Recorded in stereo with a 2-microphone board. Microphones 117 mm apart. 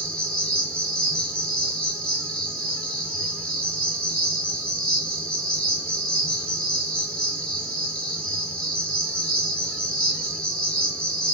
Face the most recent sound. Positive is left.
turn(degrees=10)  # may be behind; listen again after turning